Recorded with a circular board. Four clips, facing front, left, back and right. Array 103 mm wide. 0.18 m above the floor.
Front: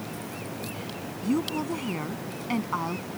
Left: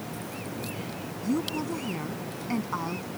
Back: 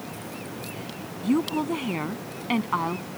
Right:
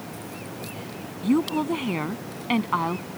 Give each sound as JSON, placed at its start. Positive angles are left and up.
{"t": 1.2, "sound": "a woman speaking", "azimuth_deg": -115}